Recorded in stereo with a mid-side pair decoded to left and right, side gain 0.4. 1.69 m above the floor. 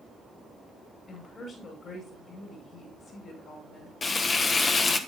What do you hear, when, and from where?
1.1 s a woman speaking: 55° left, 6 m
4.0 s frying: 40° left, 1.3 m